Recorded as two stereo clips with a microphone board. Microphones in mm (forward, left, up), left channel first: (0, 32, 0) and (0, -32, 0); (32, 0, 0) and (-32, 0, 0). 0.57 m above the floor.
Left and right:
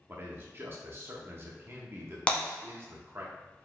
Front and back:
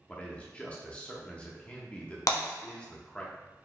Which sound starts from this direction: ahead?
Breaking glass, at 2.3 s.